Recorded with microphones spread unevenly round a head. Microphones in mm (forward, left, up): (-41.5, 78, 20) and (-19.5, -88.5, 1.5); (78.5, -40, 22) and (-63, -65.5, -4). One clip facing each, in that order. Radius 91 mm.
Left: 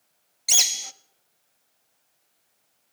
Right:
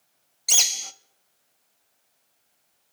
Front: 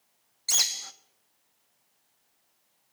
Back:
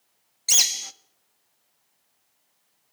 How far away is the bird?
About 0.5 m.